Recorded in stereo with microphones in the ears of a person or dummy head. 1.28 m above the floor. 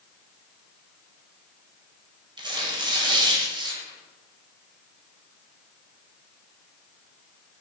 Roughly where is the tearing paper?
Right.